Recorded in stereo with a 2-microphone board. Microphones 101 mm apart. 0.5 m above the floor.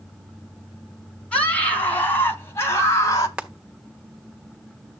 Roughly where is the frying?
Centre.